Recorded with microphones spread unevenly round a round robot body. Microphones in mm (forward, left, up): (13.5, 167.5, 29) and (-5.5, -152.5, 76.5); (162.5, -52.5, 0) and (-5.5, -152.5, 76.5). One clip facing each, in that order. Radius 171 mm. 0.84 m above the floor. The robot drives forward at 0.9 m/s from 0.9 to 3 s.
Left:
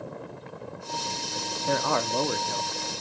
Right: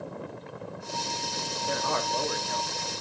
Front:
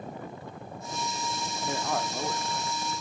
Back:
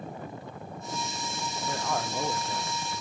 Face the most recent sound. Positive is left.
turn(degrees=140)